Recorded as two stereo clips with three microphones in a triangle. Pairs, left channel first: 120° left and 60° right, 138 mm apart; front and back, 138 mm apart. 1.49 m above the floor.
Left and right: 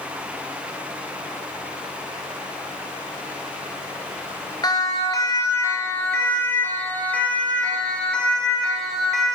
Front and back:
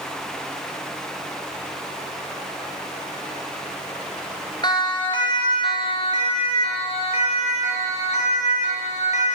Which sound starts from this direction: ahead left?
A siren, at 4.6 s.